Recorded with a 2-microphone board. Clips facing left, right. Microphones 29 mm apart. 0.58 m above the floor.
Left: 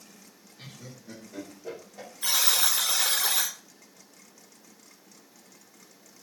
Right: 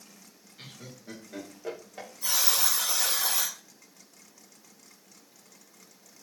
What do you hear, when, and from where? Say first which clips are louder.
0.6 s laughter: even; 45° right (ahead or behind), 1.8 m
2.2 s a buzzer: left 2 dB; 60° left (ahead or behind), 1.3 m